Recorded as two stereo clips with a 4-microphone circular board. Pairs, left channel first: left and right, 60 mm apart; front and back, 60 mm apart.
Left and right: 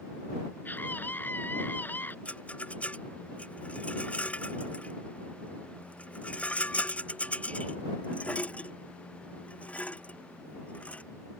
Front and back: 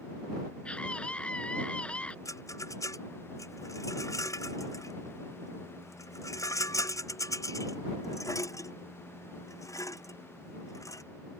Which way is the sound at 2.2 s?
20° left.